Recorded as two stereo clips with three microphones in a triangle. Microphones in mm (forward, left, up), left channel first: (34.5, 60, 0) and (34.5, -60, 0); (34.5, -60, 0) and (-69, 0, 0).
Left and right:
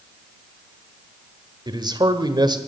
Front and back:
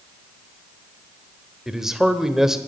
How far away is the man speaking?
About 1.3 m.